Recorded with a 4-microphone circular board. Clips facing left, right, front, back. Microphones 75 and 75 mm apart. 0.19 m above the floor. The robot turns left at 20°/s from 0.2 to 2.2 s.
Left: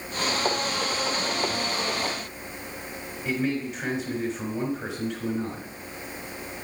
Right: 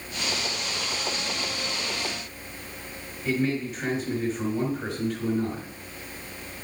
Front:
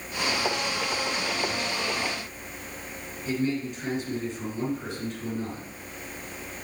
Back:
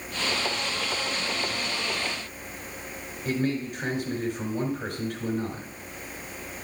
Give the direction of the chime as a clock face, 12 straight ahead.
I don't hear a chime.